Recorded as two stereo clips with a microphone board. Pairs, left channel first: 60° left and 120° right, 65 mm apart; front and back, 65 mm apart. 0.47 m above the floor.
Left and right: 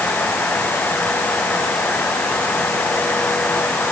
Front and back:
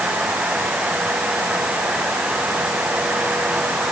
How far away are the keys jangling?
I don't hear keys jangling.